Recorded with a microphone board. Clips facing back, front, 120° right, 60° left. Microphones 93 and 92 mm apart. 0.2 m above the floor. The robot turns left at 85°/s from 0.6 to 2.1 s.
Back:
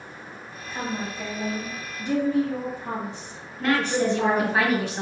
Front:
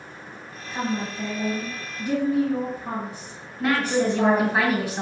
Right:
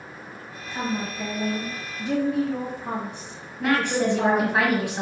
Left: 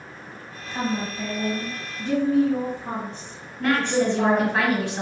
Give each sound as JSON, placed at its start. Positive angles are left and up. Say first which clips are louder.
{"t": 0.7, "sound": "a woman speaking", "louder": "front 3 dB, left 2 dB", "azimuth_deg": 60, "distance_m": 1.0}
{"t": 3.6, "sound": "a woman speaking", "louder": "front 1 dB, left 1 dB", "azimuth_deg": -65, "distance_m": 1.0}